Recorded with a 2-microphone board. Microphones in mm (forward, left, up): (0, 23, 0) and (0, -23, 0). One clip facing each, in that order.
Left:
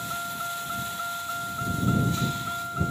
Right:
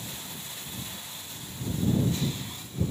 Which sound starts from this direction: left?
A vehicle, at 0.0 s.